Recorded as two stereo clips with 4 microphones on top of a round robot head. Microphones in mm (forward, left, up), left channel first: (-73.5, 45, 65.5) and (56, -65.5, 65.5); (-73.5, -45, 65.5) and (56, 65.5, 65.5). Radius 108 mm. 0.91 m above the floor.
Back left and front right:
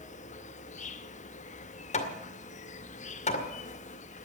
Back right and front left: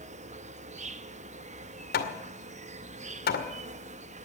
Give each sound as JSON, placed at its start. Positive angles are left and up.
{"t": 0.0, "sound": "an insect", "azimuth_deg": 90, "distance_m": 0.9}
{"t": 1.9, "sound": "hammering", "azimuth_deg": -170, "distance_m": 2.0}